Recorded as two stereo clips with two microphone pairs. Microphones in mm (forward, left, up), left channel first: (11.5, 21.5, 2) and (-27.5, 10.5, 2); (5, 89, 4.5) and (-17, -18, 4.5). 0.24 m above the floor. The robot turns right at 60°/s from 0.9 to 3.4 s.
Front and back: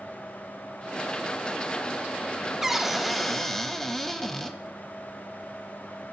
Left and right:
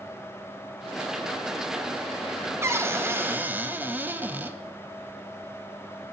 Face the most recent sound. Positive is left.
turn(degrees=-50)